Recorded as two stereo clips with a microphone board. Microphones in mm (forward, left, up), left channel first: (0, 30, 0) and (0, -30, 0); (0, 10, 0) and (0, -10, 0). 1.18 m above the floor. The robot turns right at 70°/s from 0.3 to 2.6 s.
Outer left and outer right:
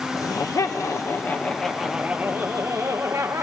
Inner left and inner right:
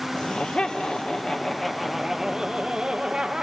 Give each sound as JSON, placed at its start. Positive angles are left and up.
{"t": 0.1, "sound": "laughter", "azimuth_deg": 75, "distance_m": 1.0}